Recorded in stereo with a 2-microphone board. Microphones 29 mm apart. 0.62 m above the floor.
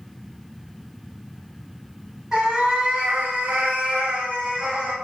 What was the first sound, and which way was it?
A cat meowing, 25° right (ahead or behind).